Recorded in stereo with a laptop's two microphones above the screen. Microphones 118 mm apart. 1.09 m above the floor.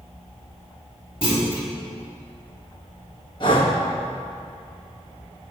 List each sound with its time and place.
1.2 s a clunk: 50° left (ahead or behind), 2.5 m
3.4 s breathing: 45° left (ahead or behind), 1.3 m